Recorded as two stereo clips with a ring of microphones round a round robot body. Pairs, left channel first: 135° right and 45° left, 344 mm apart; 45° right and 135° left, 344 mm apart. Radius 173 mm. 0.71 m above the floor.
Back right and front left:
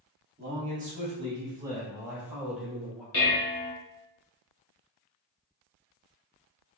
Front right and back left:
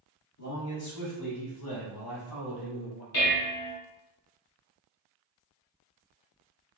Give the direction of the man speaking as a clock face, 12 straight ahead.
12 o'clock.